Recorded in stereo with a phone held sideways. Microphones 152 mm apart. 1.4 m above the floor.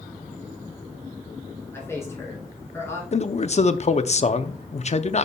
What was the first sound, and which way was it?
A man speaking, 15° left (ahead or behind).